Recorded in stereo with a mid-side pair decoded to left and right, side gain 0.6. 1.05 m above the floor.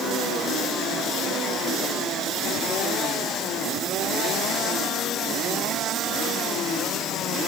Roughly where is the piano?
No piano in this recording.